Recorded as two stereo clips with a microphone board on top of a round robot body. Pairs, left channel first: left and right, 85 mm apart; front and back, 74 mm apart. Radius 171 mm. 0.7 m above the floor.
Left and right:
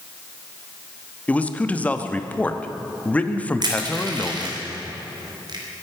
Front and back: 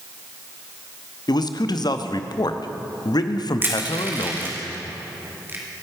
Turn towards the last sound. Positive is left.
turn(degrees=-120)